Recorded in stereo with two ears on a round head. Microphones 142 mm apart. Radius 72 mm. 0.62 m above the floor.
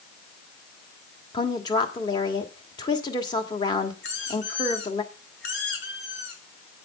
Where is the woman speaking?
25° left (ahead or behind), 1.3 m.